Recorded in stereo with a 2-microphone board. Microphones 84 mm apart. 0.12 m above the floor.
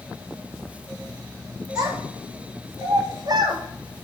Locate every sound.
1.8 s a child speaking: 35° right (ahead or behind), 1.8 m; by 3.6 s 45° right (ahead or behind), 1.5 m